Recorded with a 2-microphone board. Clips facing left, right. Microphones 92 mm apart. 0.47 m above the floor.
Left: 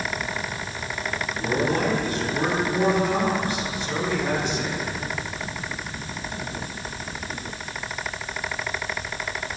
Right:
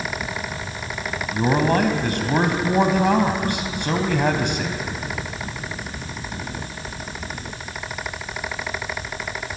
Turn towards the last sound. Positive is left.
turn(degrees=-65)  # may be behind; listen again after turning